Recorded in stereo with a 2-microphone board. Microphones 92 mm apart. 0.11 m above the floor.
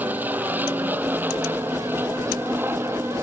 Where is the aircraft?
20° right (ahead or behind); by 3.2 s 25° right (ahead or behind).